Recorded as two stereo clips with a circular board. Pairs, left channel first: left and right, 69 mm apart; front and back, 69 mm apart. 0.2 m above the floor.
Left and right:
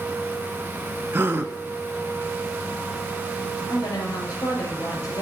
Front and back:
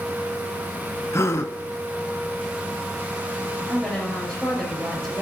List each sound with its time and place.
1.1 s a gasp: 35° right, 0.6 m
3.7 s a woman speaking: 75° left, 3.5 m